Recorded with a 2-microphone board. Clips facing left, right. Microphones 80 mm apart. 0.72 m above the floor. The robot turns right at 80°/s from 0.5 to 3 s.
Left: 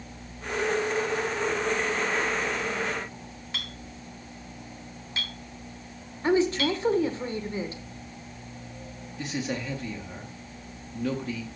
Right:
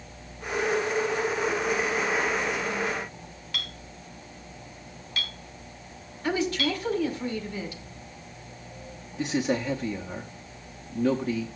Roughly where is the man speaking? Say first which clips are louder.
Right 5 dB; right.